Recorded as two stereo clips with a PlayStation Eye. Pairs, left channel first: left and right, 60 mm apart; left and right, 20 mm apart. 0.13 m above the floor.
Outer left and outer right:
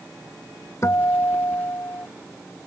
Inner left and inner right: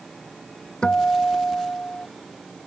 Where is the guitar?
50° left (ahead or behind).